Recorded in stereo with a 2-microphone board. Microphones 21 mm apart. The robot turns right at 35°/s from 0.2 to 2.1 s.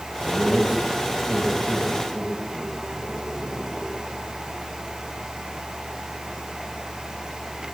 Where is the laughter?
70° right (ahead or behind), 9 m; by 4.4 s 5° right (ahead or behind), 9 m.